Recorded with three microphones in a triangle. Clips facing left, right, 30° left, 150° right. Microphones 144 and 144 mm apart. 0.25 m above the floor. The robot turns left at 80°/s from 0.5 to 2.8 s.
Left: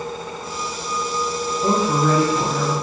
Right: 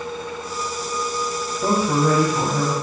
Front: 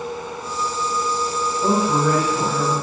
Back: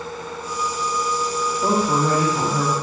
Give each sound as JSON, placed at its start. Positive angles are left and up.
{"t": 1.6, "sound": "a woman speaking", "azimuth_deg": -90, "distance_m": 1.5}